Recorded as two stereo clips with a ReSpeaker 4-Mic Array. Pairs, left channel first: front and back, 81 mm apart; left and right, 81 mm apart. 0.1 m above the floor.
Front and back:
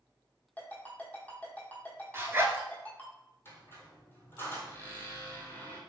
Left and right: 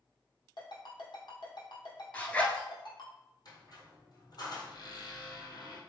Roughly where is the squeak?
Ahead left.